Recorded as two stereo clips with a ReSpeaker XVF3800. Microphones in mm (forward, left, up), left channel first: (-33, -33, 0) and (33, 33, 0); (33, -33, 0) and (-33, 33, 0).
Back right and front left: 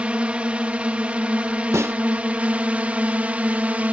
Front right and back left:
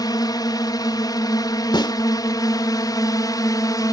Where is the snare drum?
10° right.